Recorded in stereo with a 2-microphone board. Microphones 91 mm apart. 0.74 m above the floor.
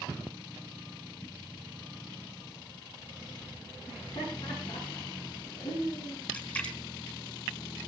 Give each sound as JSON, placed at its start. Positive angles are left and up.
{"t": 3.9, "sound": "laughter", "side_deg": 80, "distance_m": 8.5}
{"t": 6.3, "sound": "a splash", "side_deg": 20, "distance_m": 3.0}